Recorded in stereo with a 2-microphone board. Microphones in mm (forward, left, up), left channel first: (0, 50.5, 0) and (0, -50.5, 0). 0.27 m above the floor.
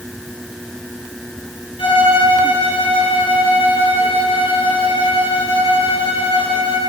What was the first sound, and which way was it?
A violin, 65° left (ahead or behind).